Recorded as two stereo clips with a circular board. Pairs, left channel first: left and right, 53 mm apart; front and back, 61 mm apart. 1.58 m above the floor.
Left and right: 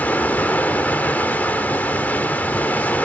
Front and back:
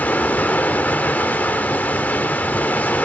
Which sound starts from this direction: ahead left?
Running water, at 0.0 s.